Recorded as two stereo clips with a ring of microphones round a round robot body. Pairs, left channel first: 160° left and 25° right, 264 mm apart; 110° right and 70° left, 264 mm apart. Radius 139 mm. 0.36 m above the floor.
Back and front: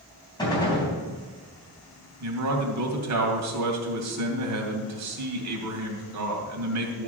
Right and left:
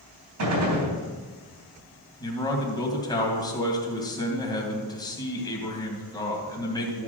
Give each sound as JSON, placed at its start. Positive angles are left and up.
{"t": 0.4, "sound": "a gunshot", "azimuth_deg": 85, "distance_m": 3.5}
{"t": 2.2, "sound": "a man speaking", "azimuth_deg": -40, "distance_m": 2.5}